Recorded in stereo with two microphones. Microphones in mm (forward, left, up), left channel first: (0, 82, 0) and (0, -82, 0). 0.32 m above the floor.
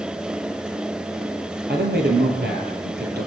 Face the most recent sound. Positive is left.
turn(degrees=-80)